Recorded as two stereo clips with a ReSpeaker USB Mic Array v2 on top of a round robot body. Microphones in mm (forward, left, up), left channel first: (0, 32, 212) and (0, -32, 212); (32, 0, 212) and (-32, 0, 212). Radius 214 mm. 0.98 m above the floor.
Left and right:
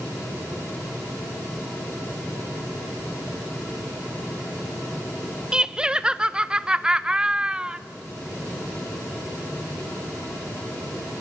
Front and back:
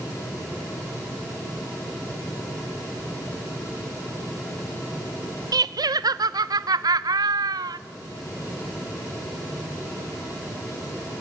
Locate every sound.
5.5 s laughter: 165° right, 0.7 m